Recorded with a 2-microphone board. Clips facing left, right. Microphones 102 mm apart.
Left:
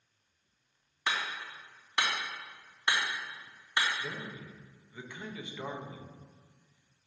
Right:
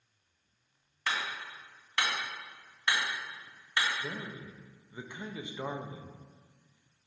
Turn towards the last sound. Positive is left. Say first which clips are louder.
# right 1 dB
turn(degrees=-20)  # may be behind; listen again after turning